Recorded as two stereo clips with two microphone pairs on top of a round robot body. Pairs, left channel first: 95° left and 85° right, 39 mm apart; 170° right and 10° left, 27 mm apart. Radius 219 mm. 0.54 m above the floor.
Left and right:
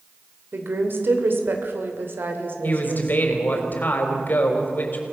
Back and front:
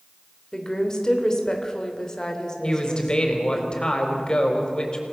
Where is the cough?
I don't hear a cough.